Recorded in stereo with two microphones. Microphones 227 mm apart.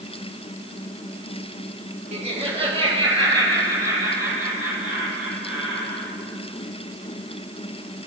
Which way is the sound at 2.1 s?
30° right (ahead or behind).